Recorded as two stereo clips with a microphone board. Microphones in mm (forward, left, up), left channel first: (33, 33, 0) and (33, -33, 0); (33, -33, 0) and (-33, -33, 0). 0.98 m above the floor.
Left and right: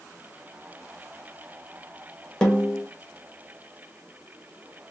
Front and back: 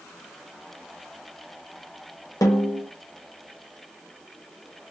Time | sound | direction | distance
2.4 | a snare drum | 10° left | 1.6 m